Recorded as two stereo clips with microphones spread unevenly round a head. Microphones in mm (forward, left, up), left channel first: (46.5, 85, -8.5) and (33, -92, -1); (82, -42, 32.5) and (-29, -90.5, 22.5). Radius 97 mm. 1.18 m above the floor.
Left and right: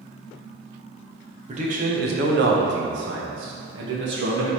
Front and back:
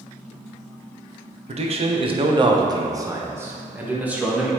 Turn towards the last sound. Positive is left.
turn(degrees=-75)